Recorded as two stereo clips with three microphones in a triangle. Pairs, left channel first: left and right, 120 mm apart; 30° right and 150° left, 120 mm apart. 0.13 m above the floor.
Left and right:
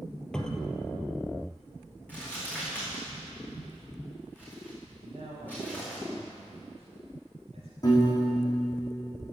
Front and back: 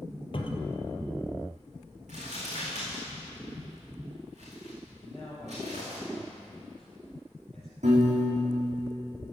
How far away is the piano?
About 4 m.